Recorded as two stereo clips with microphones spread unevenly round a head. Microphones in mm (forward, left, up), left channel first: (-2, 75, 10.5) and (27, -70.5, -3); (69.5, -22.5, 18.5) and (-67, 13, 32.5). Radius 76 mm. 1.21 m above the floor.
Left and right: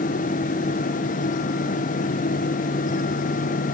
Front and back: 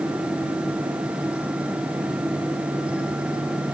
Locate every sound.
Only background noise.